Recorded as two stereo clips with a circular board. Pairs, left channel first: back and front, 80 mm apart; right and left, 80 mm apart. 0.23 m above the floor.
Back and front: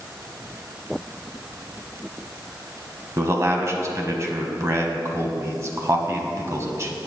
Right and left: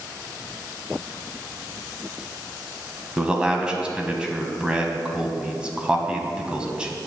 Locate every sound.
3.2 s a man speaking: 20° left, 1.2 m